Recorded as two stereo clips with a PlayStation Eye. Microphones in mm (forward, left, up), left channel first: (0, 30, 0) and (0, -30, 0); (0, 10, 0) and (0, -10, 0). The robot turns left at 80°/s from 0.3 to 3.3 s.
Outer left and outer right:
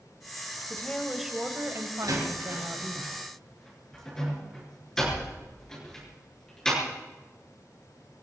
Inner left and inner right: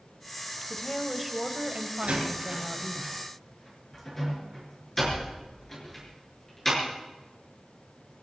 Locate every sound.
0.7 s a woman speaking: 35° left, 1.9 m; by 3.0 s 150° right, 1.9 m
2.0 s a door slam: 80° right, 6 m; by 6.8 s 10° left (ahead or behind), 6 m